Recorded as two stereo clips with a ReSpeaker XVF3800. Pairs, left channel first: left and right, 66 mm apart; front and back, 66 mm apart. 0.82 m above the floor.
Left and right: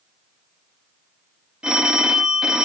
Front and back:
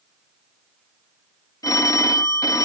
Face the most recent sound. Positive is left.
turn(degrees=-15)